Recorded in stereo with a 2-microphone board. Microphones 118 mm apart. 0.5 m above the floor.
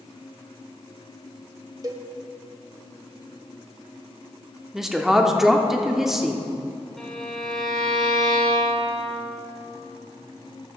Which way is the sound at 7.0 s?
5° left (ahead or behind).